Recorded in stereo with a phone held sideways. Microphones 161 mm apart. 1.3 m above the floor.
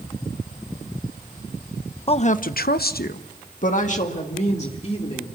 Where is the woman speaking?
35° left (ahead or behind), 0.8 m; by 5.3 s 40° left (ahead or behind), 3 m.